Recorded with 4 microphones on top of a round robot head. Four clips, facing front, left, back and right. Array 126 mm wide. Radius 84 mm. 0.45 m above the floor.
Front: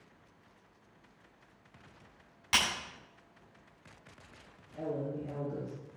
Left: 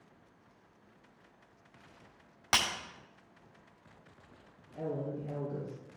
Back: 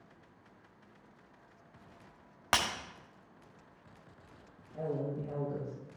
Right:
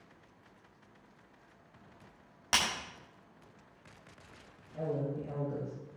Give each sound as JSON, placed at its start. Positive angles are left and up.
{"t": 2.5, "sound": "breaking glass", "azimuth_deg": 165, "distance_m": 1.8}
{"t": 4.7, "sound": "a woman speaking", "azimuth_deg": -120, "distance_m": 5.0}